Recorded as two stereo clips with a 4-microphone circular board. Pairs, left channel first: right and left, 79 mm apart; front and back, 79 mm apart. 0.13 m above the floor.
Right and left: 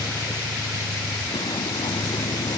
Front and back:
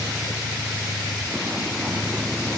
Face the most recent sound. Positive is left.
turn(degrees=-95)